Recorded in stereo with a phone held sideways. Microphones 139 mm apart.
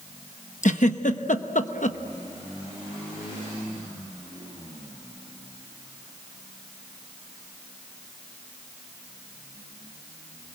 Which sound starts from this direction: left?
A giggle, at 0.6 s.